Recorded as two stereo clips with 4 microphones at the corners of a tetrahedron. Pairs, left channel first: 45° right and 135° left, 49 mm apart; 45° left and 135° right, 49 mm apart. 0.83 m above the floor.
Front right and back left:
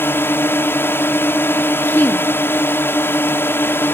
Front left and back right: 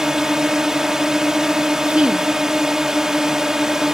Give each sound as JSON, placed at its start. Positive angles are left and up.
{"t": 0.0, "sound": "a drone", "azimuth_deg": -60}
{"t": 1.9, "sound": "a woman speaking", "azimuth_deg": -75}